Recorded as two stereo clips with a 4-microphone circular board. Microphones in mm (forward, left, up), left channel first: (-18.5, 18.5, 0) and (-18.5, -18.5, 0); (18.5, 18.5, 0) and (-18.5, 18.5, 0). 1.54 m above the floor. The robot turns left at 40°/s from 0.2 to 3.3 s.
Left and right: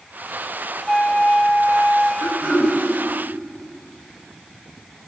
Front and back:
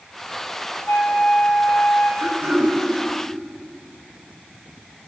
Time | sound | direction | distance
0.9 | a flute | 10° left | 2.5 m
2.2 | throat clearing | 130° right | 9 m